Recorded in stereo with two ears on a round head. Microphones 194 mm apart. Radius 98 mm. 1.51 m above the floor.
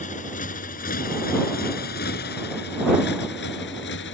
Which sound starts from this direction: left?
A motorcycle, at 0.0 s.